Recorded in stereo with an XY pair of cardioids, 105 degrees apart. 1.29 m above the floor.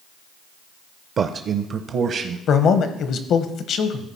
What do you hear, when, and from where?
1.2 s a man speaking: 55° right, 0.5 m; by 2.4 s 70° right, 1.1 m
2.5 s a man speaking: 65° left, 1.0 m